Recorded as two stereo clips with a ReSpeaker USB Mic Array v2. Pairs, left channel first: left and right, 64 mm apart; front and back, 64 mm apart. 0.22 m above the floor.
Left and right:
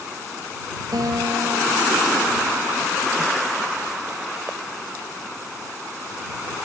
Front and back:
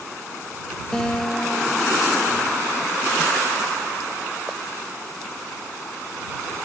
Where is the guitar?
80° right.